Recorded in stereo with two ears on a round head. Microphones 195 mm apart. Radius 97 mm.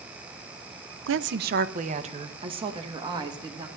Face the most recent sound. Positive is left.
turn(degrees=-20)  # may be behind; listen again after turning